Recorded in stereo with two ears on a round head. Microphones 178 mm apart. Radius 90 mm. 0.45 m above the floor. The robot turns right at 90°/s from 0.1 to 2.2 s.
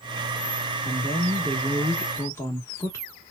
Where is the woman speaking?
25° right (ahead or behind), 1.0 m; by 3.0 s 15° left (ahead or behind), 1.0 m.